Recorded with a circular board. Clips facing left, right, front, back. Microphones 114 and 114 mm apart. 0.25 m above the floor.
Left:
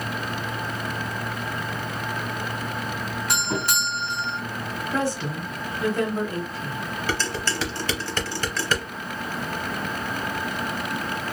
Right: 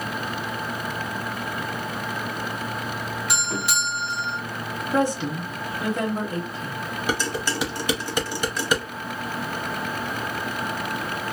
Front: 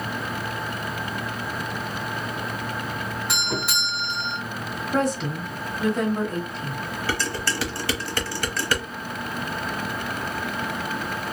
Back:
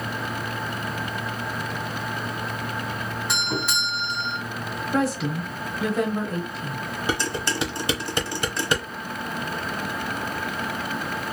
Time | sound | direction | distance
3.3 | a doorbell | 85° left | 2.5 m
4.9 | a woman speaking | 100° right | 1.0 m
7.1 | dishes clattering | 145° right | 0.7 m